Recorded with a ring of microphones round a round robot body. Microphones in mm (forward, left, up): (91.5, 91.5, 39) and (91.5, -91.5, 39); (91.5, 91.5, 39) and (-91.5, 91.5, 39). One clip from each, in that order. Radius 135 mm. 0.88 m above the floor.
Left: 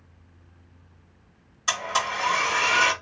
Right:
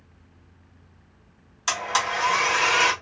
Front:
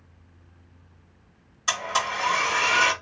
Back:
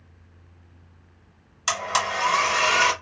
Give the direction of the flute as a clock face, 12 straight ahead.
No flute in this recording.